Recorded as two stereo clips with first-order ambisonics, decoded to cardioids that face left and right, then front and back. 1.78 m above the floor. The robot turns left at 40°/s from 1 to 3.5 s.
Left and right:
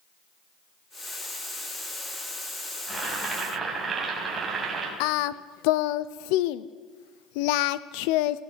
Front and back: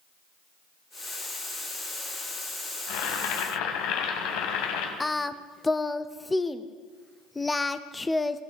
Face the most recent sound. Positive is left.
turn(degrees=80)